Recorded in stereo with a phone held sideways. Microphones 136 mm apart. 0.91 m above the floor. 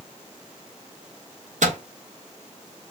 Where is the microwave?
70° right (ahead or behind), 0.9 m.